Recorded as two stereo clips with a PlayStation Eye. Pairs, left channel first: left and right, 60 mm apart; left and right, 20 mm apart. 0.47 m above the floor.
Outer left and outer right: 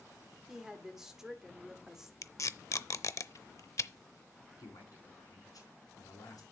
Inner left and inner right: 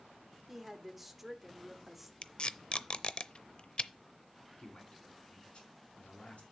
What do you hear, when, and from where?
0.5 s a woman speaking: 10° right (ahead or behind), 1.3 m
2.2 s tape being pulled: 55° left (ahead or behind), 0.5 m
4.6 s a man speaking: 80° left, 4 m